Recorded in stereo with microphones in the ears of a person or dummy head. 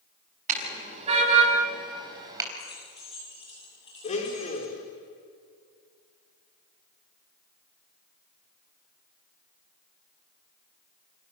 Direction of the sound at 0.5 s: 40° right (ahead or behind).